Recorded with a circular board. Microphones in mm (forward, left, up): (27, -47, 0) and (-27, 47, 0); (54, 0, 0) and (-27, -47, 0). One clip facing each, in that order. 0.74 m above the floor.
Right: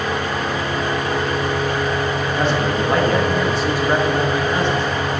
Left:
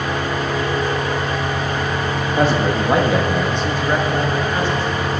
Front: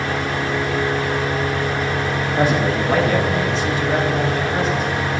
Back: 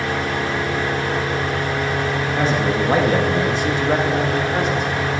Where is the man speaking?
95° left, 1.2 m; by 5.2 s 125° right, 3.5 m.